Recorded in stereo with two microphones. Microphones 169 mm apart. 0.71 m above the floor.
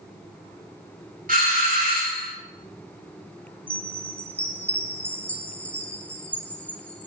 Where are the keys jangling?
No keys jangling in this recording.